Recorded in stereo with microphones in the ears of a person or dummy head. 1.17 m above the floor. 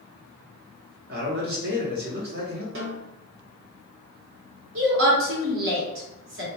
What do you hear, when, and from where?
1.1 s a man speaking: 50° right (ahead or behind), 1.0 m
2.8 s a snare drum: 65° right (ahead or behind), 0.9 m
4.8 s a woman speaking: 65° right (ahead or behind), 1.2 m